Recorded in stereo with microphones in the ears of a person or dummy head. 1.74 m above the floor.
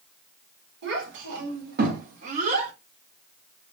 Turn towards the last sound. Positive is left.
turn(degrees=-40)  # may be behind; listen again after turning